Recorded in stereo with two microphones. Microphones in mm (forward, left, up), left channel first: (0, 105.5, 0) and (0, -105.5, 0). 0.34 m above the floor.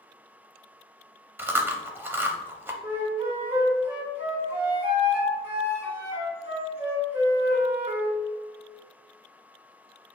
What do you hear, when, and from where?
1.4 s chewing: 10° right (ahead or behind), 0.6 m
2.8 s a flute: 10° right (ahead or behind), 1.2 m